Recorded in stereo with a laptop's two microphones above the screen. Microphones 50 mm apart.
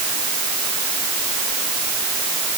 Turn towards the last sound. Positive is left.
No sound to turn to.